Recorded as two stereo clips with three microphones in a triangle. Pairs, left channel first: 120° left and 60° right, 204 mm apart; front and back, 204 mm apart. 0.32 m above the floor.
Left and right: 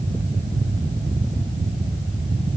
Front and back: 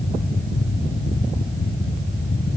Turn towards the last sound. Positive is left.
No sound to turn to.